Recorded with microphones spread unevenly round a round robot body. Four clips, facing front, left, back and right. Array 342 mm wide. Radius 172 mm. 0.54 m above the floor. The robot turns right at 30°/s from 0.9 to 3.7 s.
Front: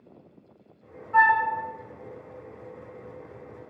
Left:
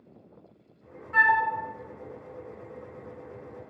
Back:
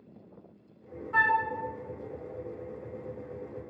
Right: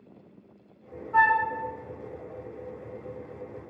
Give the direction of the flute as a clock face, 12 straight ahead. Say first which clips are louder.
Right 1 dB, front 6 dB; 7 o'clock.